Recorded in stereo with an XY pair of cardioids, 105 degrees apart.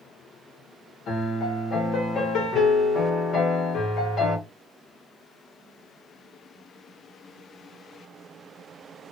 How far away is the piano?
About 1.8 m.